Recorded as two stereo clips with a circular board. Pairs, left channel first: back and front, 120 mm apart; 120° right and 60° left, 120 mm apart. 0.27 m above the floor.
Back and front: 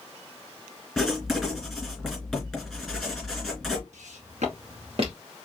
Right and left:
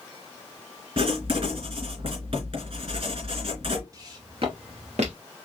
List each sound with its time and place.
1.0 s writing: 85° left, 3 m
3.9 s footsteps: straight ahead, 2.5 m; by 5.2 s 45° left, 2.5 m